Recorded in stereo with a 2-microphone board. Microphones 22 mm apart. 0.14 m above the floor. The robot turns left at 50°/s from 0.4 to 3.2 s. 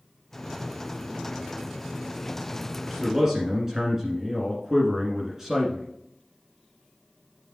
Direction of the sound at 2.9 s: 10° right (ahead or behind).